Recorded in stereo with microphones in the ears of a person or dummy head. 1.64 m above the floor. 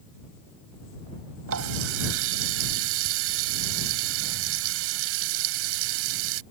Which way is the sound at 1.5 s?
70° right (ahead or behind).